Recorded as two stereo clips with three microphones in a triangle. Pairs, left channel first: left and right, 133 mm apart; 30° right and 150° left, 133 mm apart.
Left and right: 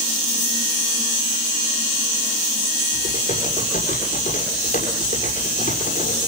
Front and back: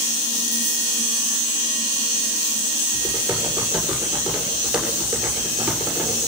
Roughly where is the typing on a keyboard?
Ahead left.